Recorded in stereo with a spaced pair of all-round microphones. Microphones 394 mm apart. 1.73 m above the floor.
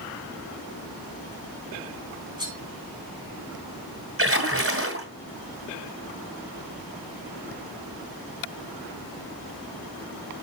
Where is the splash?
35° right (ahead or behind), 2.5 m.